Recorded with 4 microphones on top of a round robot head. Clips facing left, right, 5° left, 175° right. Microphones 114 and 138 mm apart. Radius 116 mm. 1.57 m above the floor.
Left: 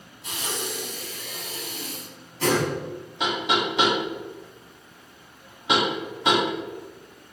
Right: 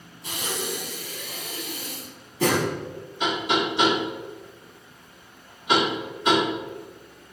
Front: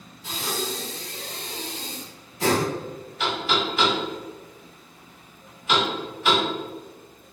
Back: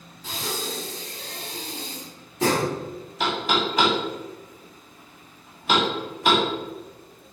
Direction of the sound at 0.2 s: 115° right.